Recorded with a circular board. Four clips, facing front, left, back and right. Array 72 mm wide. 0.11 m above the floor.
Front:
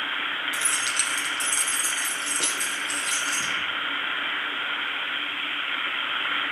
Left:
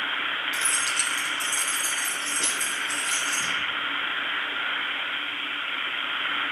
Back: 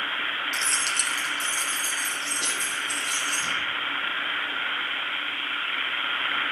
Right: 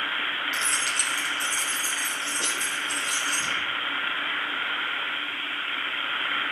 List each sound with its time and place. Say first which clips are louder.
0.5 s keys jangling: even, even; 15° left, 1.1 m; by 3.5 s 10° right, 4 m